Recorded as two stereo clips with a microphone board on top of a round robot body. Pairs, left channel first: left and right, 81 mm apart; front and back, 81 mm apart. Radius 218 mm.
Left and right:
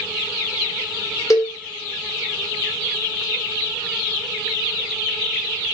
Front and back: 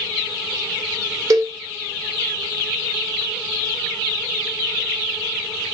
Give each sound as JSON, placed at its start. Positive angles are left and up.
{"t": 1.3, "sound": "a cowbell", "azimuth_deg": 135, "distance_m": 1.0}